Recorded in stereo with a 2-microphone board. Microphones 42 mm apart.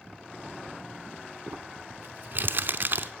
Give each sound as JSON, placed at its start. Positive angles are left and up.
{"t": 1.5, "sound": "crumpling", "side_deg": -45, "distance_m": 0.7}